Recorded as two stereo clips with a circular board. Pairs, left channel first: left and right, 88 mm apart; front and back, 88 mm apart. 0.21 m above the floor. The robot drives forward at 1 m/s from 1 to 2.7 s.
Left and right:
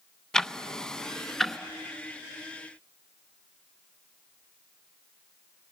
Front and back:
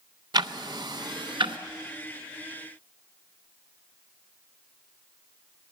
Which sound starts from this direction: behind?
Ticking, at 0.3 s.